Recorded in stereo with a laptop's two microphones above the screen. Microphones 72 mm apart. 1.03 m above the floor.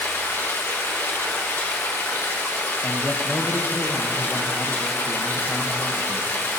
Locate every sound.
0.0 s running water: 30° left (ahead or behind), 1.0 m
2.8 s a man speaking: 25° left (ahead or behind), 0.9 m